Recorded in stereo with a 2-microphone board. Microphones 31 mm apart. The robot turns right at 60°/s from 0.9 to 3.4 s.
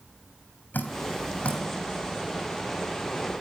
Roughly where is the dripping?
Left.